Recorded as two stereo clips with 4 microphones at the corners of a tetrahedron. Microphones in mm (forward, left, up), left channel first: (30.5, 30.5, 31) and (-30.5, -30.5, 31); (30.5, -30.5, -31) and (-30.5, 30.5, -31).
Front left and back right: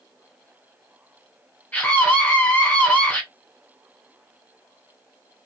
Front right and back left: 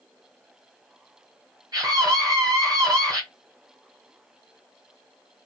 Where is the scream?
115° left, 2.5 m.